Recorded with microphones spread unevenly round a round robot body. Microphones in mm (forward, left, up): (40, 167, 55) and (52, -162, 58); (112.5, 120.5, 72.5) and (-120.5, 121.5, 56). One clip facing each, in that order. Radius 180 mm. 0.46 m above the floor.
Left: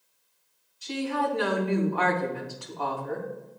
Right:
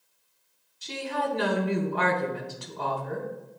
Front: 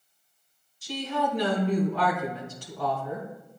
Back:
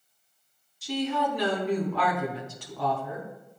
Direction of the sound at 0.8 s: 155° right.